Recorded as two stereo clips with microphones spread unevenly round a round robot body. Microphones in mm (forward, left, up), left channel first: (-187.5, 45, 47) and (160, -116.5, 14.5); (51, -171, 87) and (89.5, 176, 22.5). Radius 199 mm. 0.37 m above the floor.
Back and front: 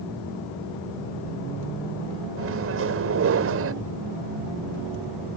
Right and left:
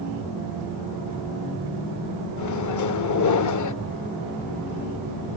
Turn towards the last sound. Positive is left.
turn(degrees=-65)